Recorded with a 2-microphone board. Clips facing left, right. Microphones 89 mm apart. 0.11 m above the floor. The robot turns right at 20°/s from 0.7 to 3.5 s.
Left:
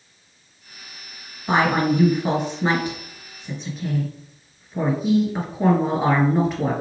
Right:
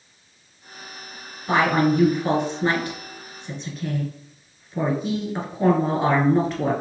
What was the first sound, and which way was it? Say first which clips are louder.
A woman speaking: even; 130° left.